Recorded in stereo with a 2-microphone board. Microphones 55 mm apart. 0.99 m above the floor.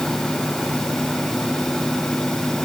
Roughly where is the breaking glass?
I don't hear breaking glass.